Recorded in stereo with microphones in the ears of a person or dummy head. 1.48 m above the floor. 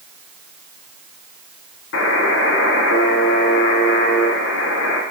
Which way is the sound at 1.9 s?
65° left (ahead or behind).